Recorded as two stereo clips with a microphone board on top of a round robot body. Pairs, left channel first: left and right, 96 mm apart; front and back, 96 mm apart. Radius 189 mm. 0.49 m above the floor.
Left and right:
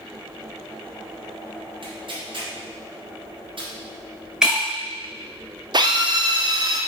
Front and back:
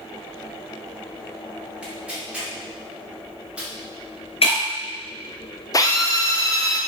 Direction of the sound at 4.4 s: 5° right.